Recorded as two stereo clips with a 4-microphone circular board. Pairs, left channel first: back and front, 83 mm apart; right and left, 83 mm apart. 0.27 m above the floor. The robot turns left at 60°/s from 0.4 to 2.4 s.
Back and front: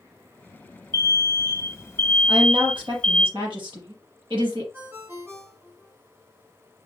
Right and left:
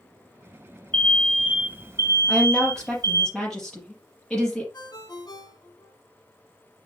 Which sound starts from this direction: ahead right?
A ringtone, at 4.7 s.